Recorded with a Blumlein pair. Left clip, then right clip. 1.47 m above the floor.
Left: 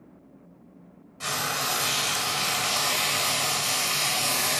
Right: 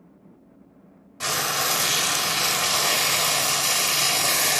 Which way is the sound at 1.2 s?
70° right.